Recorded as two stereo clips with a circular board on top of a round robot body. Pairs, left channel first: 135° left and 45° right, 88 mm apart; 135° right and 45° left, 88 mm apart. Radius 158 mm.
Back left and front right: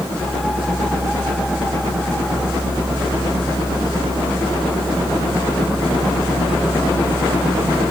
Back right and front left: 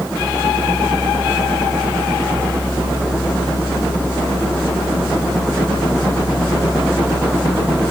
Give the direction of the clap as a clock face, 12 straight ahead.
No clap in this recording.